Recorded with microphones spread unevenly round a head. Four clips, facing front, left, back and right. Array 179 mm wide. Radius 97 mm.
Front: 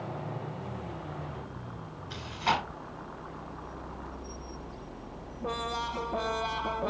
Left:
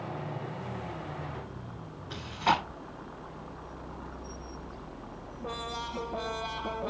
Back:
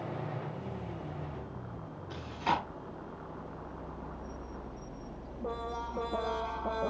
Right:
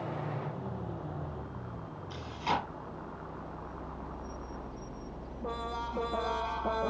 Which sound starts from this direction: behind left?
Chewing, at 2.1 s.